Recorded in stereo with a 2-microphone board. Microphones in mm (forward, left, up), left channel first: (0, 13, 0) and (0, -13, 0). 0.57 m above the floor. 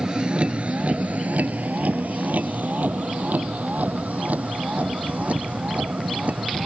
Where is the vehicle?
30° right (ahead or behind); by 6.7 s 60° right (ahead or behind).